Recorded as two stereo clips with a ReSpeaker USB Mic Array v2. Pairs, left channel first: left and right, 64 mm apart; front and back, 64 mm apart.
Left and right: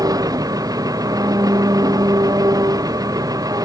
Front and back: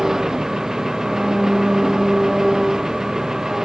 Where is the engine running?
100° right.